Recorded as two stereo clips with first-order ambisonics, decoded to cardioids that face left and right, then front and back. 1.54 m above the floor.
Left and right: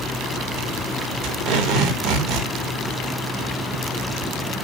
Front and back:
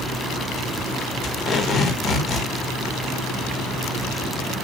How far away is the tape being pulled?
About 4 m.